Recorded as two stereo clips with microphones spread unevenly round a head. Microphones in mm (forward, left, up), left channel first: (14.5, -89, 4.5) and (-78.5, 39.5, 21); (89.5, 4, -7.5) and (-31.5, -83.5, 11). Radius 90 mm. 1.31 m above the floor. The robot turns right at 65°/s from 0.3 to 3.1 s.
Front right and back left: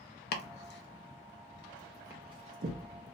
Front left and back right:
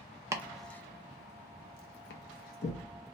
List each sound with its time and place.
0.3 s chopping: 70° right, 0.6 m; by 3.1 s 110° left, 0.6 m